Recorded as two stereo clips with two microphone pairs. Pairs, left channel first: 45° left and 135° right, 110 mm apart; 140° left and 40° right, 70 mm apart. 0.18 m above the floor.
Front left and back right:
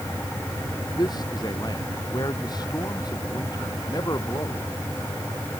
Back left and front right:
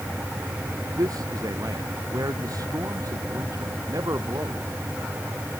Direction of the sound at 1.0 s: 10° right.